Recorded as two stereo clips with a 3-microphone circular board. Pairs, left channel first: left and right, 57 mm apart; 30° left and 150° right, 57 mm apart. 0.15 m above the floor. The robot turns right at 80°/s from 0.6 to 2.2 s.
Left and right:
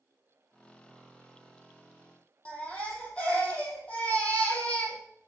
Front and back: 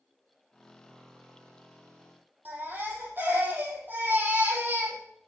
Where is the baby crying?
155° left, 3.5 m.